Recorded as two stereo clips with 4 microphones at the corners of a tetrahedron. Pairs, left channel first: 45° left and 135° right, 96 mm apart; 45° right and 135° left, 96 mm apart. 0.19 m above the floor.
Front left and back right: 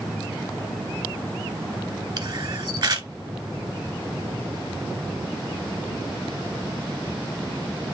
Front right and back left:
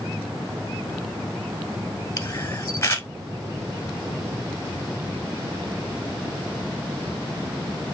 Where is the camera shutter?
100° right, 1.4 m.